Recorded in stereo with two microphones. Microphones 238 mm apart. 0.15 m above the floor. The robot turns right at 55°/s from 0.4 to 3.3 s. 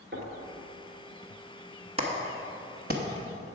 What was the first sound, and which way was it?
Knocking, 50° right (ahead or behind).